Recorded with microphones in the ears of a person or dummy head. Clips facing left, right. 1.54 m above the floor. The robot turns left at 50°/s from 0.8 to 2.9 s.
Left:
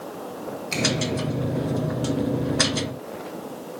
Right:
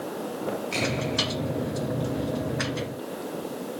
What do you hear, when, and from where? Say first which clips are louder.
0.7 s a finger snap: left 2 dB; 45° left (ahead or behind), 2 m